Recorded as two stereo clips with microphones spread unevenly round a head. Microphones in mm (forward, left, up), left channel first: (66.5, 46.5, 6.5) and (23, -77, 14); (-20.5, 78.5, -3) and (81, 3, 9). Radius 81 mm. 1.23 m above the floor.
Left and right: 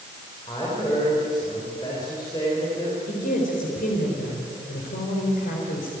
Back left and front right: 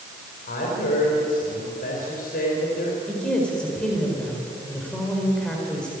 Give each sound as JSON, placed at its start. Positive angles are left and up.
{"t": 0.5, "sound": "a woman speaking", "azimuth_deg": 140, "distance_m": 4.5}
{"t": 3.1, "sound": "a woman speaking", "azimuth_deg": 60, "distance_m": 4.5}